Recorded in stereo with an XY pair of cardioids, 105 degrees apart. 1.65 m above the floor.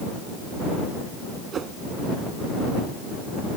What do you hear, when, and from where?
1.5 s a whoosh: 55° right